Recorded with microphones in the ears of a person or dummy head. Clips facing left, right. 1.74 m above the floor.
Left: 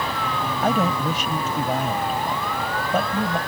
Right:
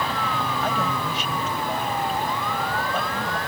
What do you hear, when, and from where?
0.6 s a man speaking: 40° left (ahead or behind)